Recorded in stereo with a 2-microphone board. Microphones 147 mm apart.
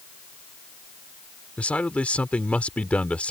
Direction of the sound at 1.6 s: 10° left (ahead or behind).